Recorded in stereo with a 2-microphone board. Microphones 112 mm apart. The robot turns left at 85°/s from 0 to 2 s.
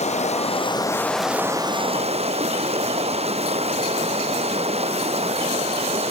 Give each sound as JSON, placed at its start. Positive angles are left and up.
{"t": 0.0, "sound": "running water", "azimuth_deg": 105, "distance_m": 0.9}